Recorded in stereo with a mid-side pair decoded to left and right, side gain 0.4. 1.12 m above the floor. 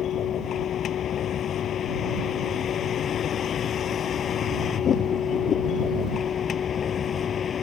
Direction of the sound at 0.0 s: 70° left.